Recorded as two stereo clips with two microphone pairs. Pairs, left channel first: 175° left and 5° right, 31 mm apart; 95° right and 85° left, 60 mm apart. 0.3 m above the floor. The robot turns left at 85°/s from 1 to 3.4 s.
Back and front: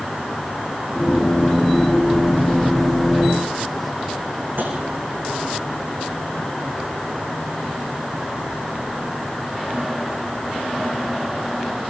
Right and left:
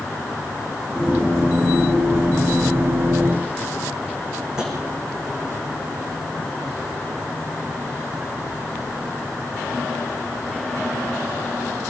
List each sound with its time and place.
4.6 s tapping: 10° left, 7.5 m